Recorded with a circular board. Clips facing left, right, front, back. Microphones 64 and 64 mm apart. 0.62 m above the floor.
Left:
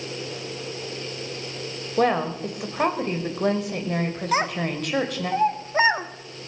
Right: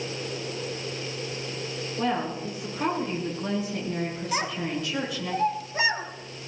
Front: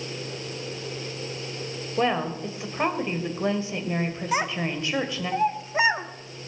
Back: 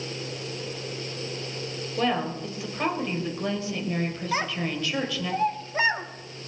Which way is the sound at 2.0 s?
60° left.